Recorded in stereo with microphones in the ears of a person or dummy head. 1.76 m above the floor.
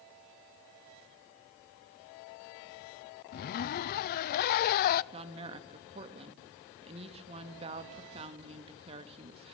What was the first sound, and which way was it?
A zipper, 50° left (ahead or behind).